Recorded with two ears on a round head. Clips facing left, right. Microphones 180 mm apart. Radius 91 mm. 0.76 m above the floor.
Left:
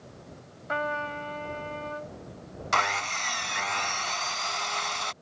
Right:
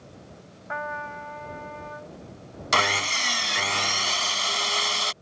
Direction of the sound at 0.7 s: 45° left (ahead or behind).